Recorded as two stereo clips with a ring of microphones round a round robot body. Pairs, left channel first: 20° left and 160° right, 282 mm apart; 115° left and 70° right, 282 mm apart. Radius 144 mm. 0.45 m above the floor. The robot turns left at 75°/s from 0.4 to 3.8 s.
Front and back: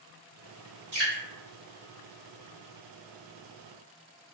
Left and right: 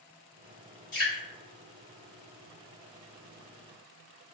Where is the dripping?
165° left, 1.9 m; by 1.2 s 145° left, 1.9 m.